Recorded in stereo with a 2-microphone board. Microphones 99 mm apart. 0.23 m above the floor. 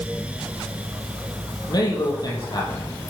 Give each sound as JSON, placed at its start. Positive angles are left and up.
{"t": 1.7, "sound": "a man speaking", "side_deg": 45, "distance_m": 6.5}